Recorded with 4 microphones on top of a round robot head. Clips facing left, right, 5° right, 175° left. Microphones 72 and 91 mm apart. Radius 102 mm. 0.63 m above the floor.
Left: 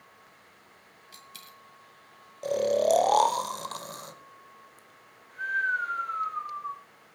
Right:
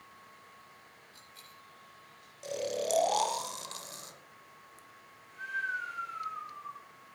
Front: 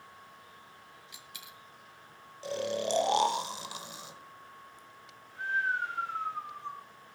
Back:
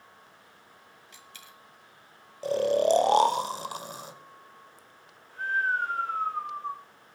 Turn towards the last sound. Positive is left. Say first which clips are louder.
# left 10 dB, back 9 dB
turn(degrees=130)